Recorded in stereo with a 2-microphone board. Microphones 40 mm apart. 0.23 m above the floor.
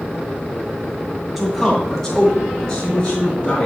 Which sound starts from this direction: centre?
A man speaking, at 1.4 s.